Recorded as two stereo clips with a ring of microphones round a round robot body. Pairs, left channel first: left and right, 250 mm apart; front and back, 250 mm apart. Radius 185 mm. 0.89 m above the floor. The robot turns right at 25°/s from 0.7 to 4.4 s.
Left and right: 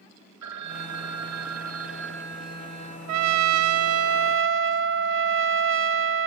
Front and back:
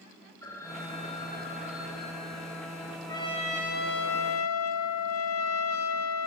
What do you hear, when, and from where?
0.4 s a phone ringing: 80° right, 1.5 m; by 3.0 s 25° right, 1.5 m
3.1 s a trumpet: 80° right, 1.0 m; by 6.3 s 50° right, 1.0 m